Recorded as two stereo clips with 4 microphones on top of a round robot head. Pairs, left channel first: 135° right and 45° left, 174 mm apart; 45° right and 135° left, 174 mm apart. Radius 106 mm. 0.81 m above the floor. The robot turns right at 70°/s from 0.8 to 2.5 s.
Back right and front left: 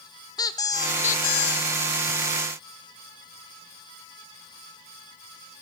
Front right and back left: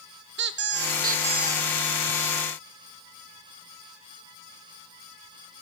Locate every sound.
0.4 s a squeak: 155° left, 0.7 m; by 1.7 s 140° right, 0.7 m